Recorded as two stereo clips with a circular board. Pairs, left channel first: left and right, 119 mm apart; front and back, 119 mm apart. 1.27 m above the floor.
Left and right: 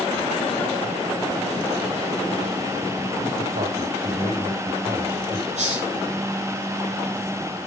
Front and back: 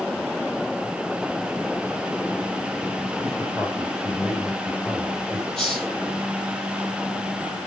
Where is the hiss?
85° right, 9 m.